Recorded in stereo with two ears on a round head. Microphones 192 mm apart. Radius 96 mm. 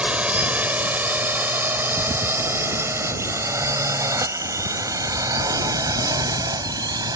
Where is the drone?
5° right (ahead or behind); by 7.2 s 20° right (ahead or behind).